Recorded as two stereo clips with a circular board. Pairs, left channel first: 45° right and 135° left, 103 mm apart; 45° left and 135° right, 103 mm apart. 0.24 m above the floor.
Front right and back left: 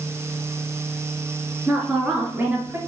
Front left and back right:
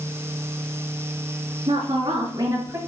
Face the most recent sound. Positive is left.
turn(degrees=-175)